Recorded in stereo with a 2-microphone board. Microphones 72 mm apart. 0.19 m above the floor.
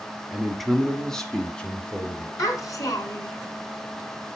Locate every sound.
0.3 s a man speaking: 5° right (ahead or behind), 1.2 m; by 2.3 s 15° left (ahead or behind), 2 m
2.4 s a child speaking: 50° left (ahead or behind), 1.9 m